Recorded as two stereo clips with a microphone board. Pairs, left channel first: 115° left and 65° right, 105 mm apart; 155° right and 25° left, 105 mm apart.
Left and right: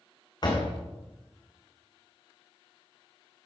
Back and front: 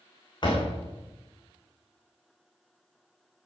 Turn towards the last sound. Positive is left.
turn(degrees=160)